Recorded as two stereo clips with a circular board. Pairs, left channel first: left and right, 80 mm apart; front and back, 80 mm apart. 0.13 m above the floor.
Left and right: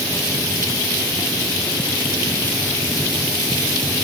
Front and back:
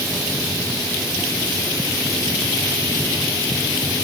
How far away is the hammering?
I don't hear hammering.